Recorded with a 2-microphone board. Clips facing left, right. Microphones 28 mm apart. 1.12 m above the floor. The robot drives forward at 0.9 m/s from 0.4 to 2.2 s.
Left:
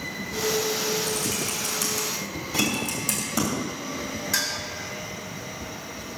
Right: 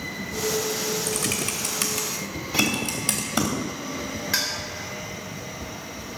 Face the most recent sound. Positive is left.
turn(degrees=-25)  # may be behind; listen again after turning